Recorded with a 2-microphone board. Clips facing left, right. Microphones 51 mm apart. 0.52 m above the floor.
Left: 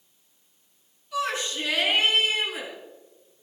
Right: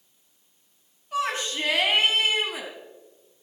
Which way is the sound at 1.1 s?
40° right (ahead or behind).